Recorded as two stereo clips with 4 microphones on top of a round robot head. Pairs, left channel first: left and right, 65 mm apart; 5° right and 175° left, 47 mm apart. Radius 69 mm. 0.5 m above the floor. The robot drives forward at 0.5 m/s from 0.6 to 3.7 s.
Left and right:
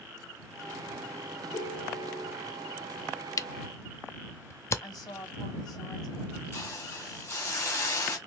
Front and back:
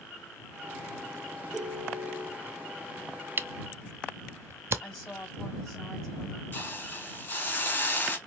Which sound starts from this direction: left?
A woman speaking, at 4.8 s.